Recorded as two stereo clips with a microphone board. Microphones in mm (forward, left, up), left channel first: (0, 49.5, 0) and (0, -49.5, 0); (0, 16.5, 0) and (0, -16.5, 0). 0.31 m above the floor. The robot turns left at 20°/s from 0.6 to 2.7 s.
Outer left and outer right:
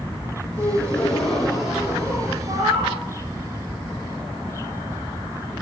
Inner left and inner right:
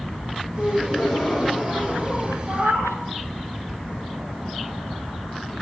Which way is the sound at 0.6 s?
15° left.